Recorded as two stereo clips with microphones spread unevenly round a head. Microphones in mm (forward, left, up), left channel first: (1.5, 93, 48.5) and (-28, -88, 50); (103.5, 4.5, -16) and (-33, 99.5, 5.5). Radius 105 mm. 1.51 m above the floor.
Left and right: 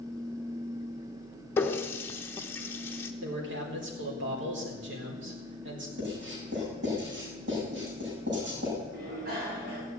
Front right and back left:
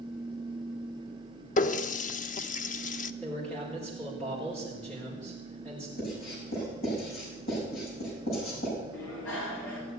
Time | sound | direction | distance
1.6 | a running tap | 5° left | 0.8 m
3.2 | a man speaking | 120° right | 4.5 m
6.0 | writing | 65° right | 7.5 m
8.9 | a bicycle bell | 55° right | 8 m